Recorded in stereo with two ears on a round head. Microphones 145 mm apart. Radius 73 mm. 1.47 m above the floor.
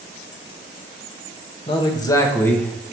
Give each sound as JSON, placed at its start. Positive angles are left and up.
{"t": 1.7, "sound": "a man speaking", "side_deg": 35, "distance_m": 1.2}